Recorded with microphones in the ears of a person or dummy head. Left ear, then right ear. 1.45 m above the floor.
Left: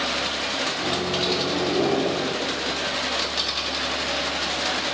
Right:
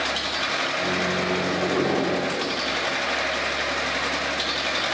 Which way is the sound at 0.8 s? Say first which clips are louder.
Even; 15° left (ahead or behind).